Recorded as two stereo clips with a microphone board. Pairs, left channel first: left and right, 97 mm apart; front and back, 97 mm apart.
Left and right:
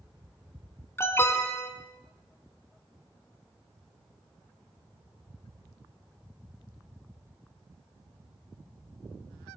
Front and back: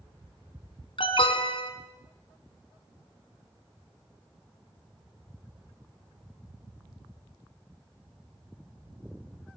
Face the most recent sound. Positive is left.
turn(degrees=25)